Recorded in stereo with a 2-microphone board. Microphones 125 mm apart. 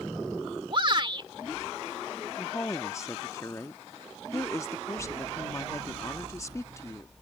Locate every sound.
0.7 s a shout: 45° right (ahead or behind)
2.4 s a woman speaking: 25° left (ahead or behind)